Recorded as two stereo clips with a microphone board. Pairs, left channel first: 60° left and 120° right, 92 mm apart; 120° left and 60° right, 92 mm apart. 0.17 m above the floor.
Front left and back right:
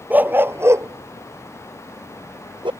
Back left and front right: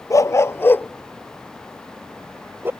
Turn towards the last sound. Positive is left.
turn(degrees=-125)